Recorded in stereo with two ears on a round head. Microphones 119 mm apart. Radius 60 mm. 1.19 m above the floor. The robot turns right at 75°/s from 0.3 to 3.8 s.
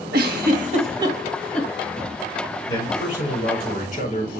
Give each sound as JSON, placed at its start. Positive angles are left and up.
{"t": 0.1, "sound": "a giggle", "side_deg": -75, "distance_m": 1.9}
{"t": 2.7, "sound": "a man speaking", "azimuth_deg": 30, "distance_m": 6.0}